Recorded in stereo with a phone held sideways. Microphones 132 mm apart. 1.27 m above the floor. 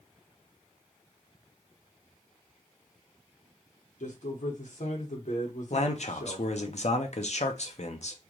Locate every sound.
4.0 s a man speaking: 65° left (ahead or behind), 1.4 m
5.7 s a man speaking: 60° left (ahead or behind), 0.8 m